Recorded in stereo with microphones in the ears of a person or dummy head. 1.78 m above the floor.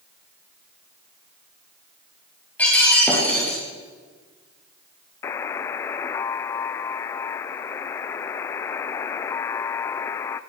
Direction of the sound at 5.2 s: 20° left (ahead or behind).